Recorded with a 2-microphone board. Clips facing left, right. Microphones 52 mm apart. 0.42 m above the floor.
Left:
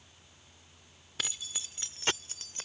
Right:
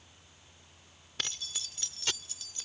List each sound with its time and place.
1.2 s keys jangling: 5° left (ahead or behind); by 2.7 s 50° left (ahead or behind)